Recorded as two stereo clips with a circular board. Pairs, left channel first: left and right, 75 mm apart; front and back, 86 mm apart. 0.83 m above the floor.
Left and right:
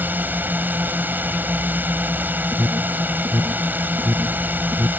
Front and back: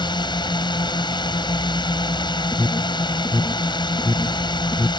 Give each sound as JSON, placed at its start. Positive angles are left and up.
{"t": 0.0, "sound": "a drone", "azimuth_deg": -25}
{"t": 2.5, "sound": "an alarm", "azimuth_deg": -60}